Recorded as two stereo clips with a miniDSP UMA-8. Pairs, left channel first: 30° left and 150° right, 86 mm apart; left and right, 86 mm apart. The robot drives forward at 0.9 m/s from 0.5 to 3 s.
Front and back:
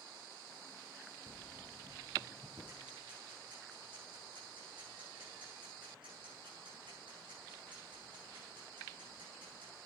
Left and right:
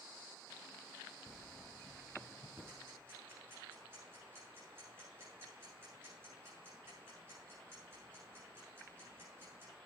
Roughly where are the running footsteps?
Behind.